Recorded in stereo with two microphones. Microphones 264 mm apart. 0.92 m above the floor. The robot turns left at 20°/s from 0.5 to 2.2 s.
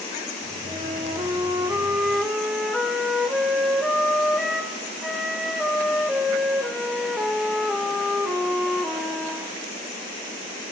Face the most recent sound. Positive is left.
turn(degrees=180)